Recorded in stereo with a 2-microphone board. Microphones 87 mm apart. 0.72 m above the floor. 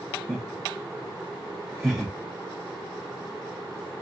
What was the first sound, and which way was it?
Laughter, 10° right (ahead or behind).